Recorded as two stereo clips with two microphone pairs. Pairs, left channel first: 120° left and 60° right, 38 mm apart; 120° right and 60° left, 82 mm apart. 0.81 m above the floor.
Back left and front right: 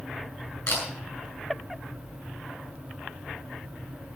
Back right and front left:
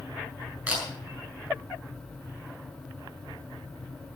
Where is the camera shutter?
130° left, 7.5 m.